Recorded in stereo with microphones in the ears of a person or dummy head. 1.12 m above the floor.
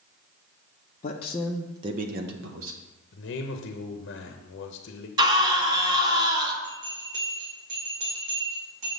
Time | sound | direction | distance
1.0 | a man speaking | 35° left (ahead or behind) | 0.8 m
3.1 | a man speaking | 60° left (ahead or behind) | 0.9 m
5.2 | a scream | 25° right (ahead or behind) | 1.4 m
6.6 | a bell | 40° right (ahead or behind) | 2.5 m